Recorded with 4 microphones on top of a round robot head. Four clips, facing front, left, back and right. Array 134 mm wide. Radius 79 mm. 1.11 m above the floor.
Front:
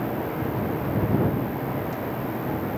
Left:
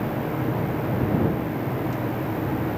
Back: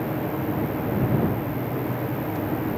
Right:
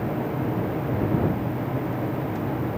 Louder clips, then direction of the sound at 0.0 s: Left 1 dB, back 1 dB; 105° right.